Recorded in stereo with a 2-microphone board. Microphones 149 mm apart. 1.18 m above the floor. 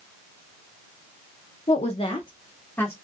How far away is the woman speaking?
About 0.7 m.